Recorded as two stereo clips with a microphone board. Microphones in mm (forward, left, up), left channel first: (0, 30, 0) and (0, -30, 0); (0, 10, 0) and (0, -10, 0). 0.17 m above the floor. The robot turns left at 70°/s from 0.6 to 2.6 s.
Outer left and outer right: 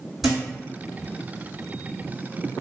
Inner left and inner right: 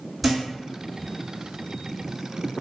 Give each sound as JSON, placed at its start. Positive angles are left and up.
{"t": 0.2, "sound": "a thud", "side_deg": 0, "distance_m": 1.5}